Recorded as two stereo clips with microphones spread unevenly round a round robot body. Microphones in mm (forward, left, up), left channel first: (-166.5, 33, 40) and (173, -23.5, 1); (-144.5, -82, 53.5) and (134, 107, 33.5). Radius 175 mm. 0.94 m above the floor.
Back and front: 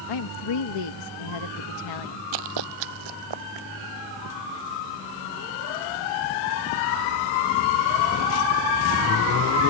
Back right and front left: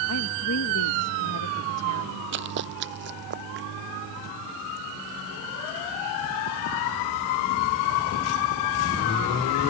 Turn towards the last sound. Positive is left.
turn(degrees=-30)